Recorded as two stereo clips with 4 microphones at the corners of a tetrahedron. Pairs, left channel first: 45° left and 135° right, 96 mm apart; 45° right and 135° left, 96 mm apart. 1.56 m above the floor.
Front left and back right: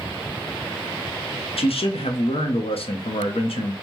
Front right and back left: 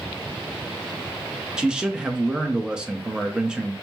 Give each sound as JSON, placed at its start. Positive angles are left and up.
{"t": 1.6, "sound": "a man speaking", "azimuth_deg": 55, "distance_m": 0.6}